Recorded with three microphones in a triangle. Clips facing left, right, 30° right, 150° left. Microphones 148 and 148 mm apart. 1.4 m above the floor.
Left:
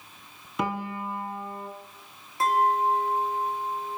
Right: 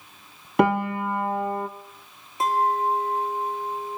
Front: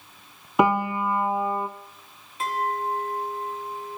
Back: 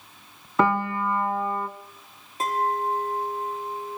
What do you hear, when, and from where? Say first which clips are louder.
0.6 s a piano: right 9 dB, front 1 dB; 105° right, 0.6 m
2.4 s a clink: even, back 2 dB; 160° right, 1.7 m